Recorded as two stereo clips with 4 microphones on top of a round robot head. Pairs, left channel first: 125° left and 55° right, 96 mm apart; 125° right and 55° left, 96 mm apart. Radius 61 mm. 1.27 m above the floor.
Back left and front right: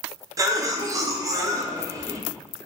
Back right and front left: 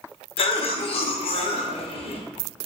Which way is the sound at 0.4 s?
110° right.